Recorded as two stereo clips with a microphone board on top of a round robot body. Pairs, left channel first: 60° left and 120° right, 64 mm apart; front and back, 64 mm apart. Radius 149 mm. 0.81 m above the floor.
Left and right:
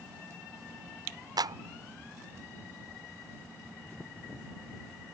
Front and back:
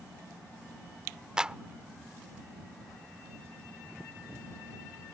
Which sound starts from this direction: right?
A clap, at 1.4 s.